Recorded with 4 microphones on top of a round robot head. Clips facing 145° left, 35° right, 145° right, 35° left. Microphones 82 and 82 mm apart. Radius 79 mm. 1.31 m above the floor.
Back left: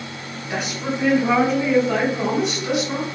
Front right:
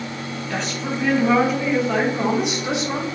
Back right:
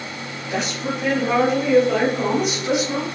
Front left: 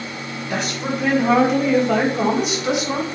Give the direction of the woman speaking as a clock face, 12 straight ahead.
10 o'clock.